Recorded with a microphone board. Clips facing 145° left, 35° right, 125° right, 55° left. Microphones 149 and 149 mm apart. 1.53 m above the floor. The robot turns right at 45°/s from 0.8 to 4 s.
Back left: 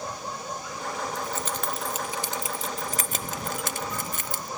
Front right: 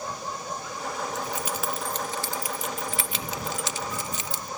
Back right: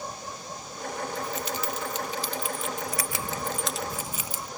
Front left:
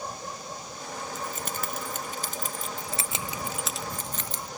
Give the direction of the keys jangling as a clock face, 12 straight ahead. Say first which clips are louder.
Even, back right 3 dB; 11 o'clock.